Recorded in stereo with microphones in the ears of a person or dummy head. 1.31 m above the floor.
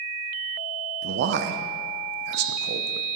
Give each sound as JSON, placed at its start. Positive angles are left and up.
{"t": 1.0, "sound": "a man speaking", "side_deg": -55, "distance_m": 0.6}